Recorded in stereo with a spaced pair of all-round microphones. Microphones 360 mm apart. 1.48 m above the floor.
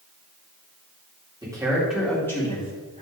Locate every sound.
1.4 s a man speaking: 10° right (ahead or behind), 3.5 m; by 3.0 s 20° left (ahead or behind), 4 m